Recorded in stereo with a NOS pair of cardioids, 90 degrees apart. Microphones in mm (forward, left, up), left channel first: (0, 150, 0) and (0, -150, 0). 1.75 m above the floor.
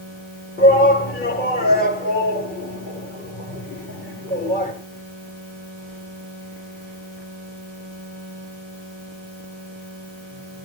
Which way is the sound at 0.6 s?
30° left.